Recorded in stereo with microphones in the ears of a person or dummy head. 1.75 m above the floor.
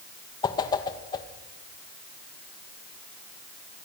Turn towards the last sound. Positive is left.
turn(degrees=30)  # may be behind; listen again after turning